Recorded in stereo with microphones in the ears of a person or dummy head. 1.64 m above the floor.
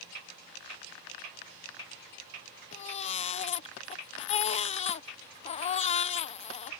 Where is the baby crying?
30° left (ahead or behind).